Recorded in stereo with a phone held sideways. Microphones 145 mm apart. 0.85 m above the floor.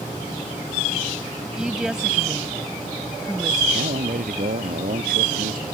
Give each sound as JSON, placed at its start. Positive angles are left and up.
{"t": 1.6, "sound": "a woman speaking", "side_deg": -5}
{"t": 3.7, "sound": "a man speaking", "side_deg": -80}